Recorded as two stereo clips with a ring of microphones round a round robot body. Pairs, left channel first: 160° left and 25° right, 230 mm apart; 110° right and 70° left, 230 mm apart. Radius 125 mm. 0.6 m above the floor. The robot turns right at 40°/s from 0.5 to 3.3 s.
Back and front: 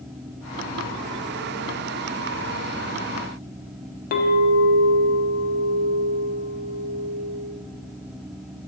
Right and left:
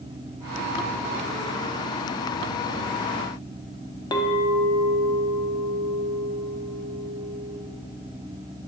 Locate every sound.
4.1 s a clink: 175° right, 0.7 m